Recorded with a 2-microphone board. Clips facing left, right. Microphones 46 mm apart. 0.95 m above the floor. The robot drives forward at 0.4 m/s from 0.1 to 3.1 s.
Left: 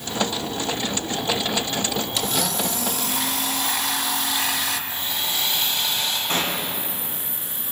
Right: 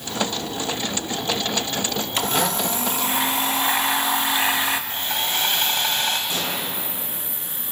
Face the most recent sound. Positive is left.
turn(degrees=50)  # may be behind; listen again after turning